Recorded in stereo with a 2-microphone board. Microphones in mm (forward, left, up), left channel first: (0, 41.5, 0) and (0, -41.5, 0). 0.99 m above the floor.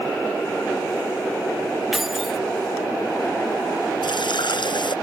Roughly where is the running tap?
Left.